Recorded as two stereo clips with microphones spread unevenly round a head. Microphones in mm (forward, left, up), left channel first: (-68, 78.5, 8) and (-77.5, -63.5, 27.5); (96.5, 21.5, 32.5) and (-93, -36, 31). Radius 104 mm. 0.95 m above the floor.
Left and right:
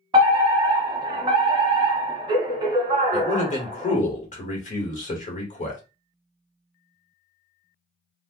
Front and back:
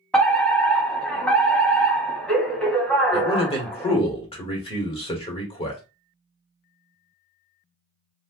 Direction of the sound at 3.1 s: 75° left.